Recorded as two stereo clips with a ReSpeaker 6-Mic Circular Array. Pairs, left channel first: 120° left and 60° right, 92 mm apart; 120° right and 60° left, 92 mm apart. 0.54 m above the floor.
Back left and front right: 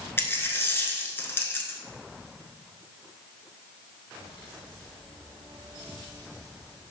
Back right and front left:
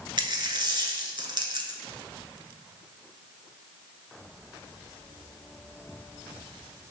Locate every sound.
0.2 s a dropped coin: 60° left, 0.7 m